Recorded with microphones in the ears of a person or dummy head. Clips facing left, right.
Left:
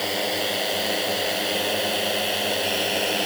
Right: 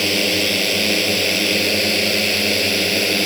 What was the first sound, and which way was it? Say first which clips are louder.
A drone: right 6 dB; 40° right (ahead or behind).